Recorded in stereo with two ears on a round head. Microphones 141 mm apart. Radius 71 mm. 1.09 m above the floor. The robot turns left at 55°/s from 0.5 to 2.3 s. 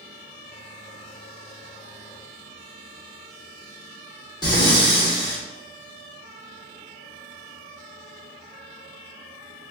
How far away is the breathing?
About 1.3 m.